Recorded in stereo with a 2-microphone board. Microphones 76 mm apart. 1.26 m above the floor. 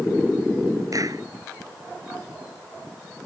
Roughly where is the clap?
Right.